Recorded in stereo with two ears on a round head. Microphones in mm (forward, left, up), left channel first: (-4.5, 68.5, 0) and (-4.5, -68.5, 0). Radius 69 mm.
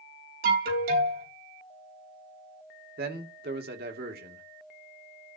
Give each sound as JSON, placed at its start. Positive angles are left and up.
{"t": 0.4, "sound": "an alarm", "side_deg": -65, "distance_m": 4.0}
{"t": 3.0, "sound": "a man speaking", "side_deg": -70, "distance_m": 2.5}